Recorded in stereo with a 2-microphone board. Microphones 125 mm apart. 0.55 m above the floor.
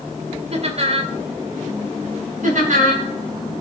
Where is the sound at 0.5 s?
50° right (ahead or behind), 2 m.